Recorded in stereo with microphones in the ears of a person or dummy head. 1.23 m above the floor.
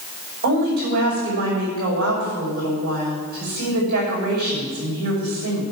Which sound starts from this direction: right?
A woman speaking, at 0.4 s.